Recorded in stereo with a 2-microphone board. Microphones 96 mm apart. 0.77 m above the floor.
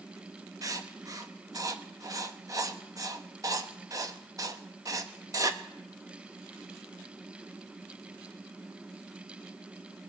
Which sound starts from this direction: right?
Writing, at 0.6 s.